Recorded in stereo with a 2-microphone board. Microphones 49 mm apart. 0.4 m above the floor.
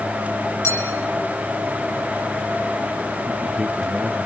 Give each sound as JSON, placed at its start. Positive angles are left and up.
{"t": 0.6, "sound": "a clink", "side_deg": 70, "distance_m": 7.0}
{"t": 3.3, "sound": "a man speaking", "side_deg": 5, "distance_m": 4.0}